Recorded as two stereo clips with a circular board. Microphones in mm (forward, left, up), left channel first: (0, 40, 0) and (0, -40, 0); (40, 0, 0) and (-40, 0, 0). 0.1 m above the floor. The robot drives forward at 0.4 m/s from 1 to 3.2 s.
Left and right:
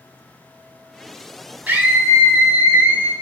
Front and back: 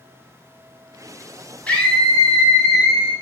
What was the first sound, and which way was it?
A scream, 50° right.